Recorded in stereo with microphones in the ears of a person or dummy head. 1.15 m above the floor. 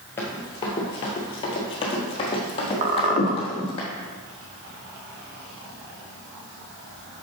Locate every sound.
0.2 s running footsteps: 15° left (ahead or behind), 1.2 m; by 3.8 s 30° left (ahead or behind), 2.5 m
2.8 s a squeak: 35° right (ahead or behind), 0.6 m